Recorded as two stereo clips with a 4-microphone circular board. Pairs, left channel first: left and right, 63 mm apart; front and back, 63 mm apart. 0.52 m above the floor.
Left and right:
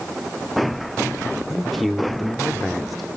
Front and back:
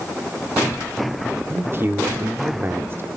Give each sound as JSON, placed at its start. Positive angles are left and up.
{"t": 1.5, "sound": "a man speaking", "azimuth_deg": 180, "distance_m": 1.1}